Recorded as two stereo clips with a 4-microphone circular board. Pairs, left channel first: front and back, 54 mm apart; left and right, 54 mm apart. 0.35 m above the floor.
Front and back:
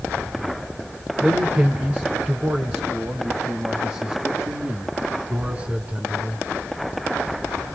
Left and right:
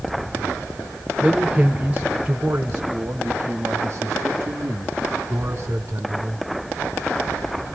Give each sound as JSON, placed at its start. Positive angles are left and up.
{"t": 1.2, "sound": "a man speaking", "azimuth_deg": -145, "distance_m": 1.1}